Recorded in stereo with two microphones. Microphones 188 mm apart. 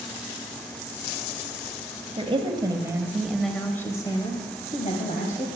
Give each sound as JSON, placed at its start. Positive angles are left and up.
{"t": 2.2, "sound": "a woman speaking", "side_deg": -30, "distance_m": 1.3}